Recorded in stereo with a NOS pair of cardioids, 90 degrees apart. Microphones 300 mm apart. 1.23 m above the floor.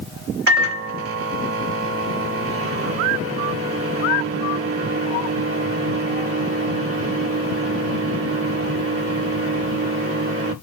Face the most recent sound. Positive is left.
turn(degrees=-50)